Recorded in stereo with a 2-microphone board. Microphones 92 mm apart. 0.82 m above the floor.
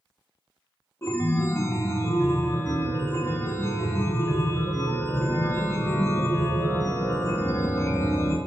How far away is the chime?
About 0.9 m.